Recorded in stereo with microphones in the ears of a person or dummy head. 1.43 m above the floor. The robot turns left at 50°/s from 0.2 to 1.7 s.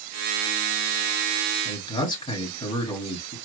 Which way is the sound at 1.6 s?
30° left (ahead or behind).